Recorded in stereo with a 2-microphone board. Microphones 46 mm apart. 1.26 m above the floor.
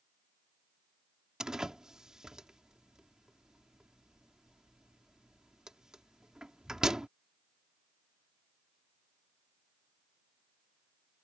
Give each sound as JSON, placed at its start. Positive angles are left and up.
{"t": 1.4, "sound": "a door slam", "side_deg": -15}